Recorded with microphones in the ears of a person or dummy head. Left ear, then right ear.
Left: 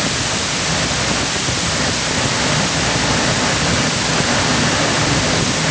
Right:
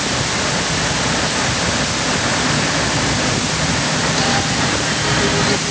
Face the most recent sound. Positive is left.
No sound to turn to.